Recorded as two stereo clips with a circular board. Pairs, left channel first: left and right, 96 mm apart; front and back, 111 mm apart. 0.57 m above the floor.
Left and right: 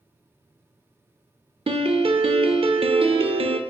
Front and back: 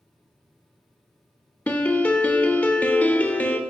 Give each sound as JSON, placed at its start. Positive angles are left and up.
{"t": 1.7, "sound": "a piano", "azimuth_deg": -75, "distance_m": 0.6}